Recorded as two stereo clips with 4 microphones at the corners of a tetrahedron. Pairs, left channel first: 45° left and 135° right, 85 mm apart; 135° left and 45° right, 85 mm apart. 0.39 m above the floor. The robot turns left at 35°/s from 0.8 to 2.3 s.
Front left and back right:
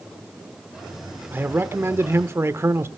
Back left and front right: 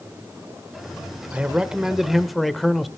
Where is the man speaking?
100° right, 0.8 m; by 2.9 s 135° right, 0.8 m.